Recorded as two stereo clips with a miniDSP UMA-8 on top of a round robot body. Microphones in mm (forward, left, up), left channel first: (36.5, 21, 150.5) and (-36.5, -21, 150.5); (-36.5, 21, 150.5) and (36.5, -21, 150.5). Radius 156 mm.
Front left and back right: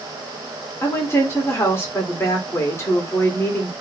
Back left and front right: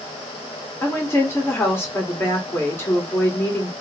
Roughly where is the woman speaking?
Left.